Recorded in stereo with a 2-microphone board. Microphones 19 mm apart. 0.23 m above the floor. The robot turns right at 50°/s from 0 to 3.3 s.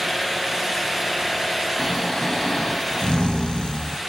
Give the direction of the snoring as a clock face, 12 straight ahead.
11 o'clock.